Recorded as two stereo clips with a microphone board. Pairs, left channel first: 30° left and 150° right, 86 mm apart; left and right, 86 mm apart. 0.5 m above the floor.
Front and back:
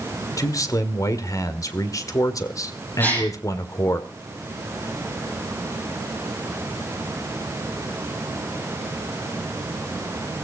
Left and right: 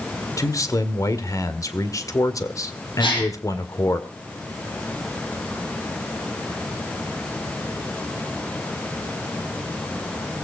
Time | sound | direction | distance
0.4 | a man speaking | 60° left | 1.7 m
3.0 | a gasp | 100° left | 8 m